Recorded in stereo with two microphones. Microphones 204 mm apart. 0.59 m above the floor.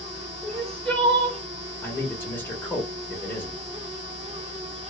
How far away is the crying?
About 0.9 m.